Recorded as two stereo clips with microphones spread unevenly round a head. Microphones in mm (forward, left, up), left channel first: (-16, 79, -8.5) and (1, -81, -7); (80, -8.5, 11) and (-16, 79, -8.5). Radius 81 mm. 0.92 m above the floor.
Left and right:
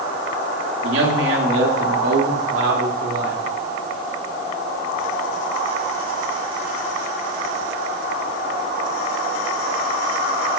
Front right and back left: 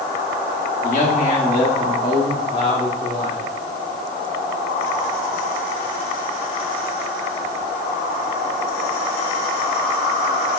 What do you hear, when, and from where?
0.8 s a man speaking: 90° right, 2.5 m; by 3.4 s 100° right, 4 m